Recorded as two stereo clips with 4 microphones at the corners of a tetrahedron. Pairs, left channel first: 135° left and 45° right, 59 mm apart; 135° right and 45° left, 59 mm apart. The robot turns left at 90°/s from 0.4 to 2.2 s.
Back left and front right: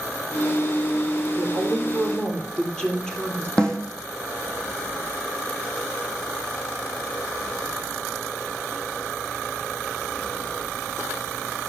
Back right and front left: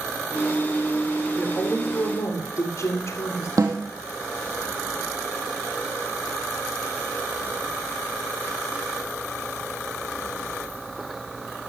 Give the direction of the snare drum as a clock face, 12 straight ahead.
10 o'clock.